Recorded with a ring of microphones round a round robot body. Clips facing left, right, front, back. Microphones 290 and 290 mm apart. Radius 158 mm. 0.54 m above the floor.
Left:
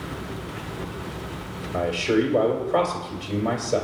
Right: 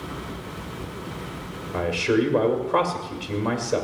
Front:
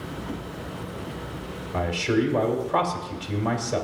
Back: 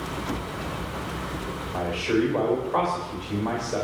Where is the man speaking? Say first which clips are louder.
Even, even; 20° right, 2.5 m.